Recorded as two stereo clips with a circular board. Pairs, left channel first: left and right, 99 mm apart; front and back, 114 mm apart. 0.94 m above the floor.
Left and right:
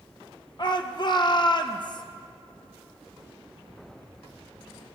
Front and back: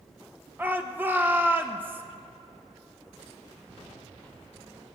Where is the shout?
110° left, 0.5 m.